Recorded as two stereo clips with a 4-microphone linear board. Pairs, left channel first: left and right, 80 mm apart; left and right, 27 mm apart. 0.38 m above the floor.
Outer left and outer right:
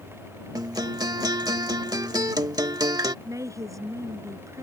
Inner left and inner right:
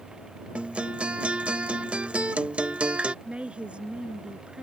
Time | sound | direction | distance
0.6 | a guitar | 55° right (ahead or behind) | ?
3.2 | a woman speaking | 40° right (ahead or behind) | ?